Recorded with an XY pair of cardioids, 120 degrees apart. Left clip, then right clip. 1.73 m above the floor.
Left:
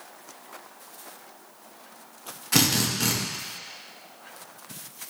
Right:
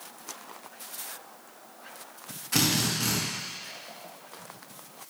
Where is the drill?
30° left, 2 m.